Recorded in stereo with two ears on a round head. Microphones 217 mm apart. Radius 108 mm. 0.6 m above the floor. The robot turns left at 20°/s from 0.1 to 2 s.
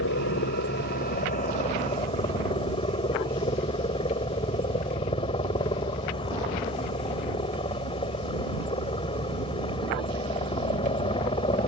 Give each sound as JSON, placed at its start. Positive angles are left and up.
{"t": 0.0, "sound": "a helicopter", "azimuth_deg": 60}